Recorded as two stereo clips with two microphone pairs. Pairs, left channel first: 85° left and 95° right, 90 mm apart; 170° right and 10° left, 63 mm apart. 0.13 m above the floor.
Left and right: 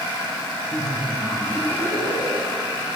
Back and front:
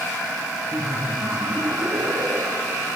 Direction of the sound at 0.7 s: 35° left.